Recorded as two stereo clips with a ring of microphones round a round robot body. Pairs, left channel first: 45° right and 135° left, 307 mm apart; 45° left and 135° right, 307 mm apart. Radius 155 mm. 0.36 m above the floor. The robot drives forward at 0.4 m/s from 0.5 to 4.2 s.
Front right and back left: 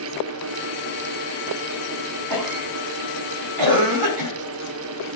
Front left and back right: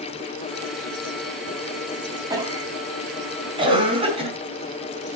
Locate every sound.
2.3 s a cough: 145° left, 4 m; by 4.3 s 155° left, 4.5 m